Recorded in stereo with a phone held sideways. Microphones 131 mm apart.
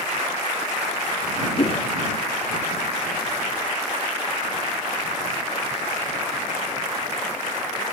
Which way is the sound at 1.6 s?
45° left (ahead or behind).